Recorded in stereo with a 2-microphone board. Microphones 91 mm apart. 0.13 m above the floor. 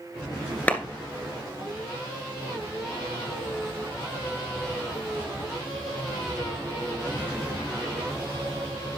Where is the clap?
20° left (ahead or behind), 1.9 m.